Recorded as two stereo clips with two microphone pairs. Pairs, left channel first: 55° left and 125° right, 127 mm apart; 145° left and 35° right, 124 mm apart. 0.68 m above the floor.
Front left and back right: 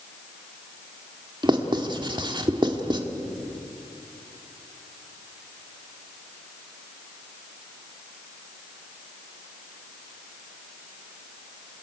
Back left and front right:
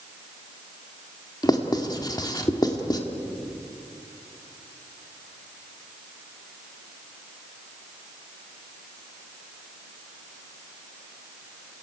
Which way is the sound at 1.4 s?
170° right.